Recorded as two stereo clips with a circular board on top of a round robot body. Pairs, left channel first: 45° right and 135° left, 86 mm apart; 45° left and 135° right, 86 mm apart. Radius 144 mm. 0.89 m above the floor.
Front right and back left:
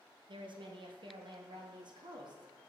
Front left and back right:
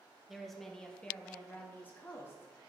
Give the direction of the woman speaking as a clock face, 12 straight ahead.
7 o'clock.